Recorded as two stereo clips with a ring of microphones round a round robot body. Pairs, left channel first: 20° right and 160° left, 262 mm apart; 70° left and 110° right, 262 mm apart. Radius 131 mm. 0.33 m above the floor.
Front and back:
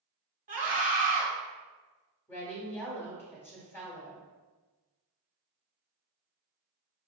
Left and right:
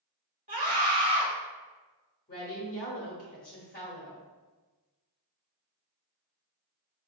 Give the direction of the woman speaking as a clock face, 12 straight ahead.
10 o'clock.